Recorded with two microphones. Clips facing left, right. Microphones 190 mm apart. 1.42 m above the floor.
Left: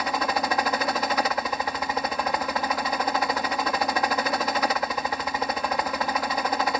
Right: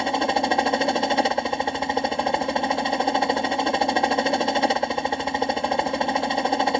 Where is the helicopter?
30° right (ahead or behind).